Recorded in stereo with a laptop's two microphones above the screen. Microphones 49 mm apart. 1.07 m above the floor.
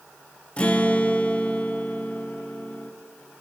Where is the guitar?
25° left (ahead or behind), 0.8 m.